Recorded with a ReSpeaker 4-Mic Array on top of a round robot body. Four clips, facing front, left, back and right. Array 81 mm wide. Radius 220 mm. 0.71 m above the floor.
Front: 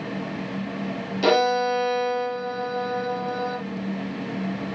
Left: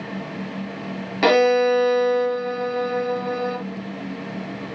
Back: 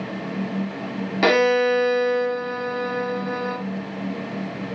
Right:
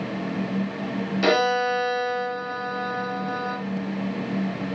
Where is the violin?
130° left, 1.1 m.